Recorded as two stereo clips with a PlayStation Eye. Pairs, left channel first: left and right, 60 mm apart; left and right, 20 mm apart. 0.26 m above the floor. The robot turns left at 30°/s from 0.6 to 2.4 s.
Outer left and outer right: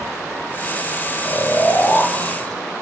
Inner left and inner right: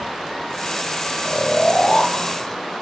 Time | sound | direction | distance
1.2 | snoring | 45° left | 5.5 m